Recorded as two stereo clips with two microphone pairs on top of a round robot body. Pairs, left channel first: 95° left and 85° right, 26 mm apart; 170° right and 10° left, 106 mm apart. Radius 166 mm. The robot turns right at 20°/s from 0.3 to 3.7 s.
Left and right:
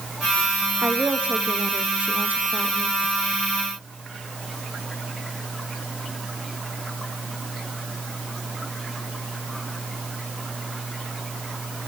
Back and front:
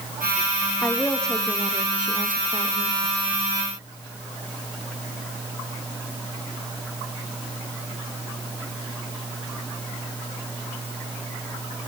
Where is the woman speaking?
95° right, 1.4 m; by 3.0 s 50° right, 1.4 m.